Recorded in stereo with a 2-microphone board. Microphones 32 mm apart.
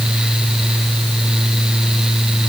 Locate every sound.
Only background noise.